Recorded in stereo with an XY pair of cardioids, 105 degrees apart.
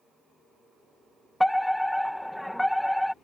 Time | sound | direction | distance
1.4 | a fire alarm | 10° left | ?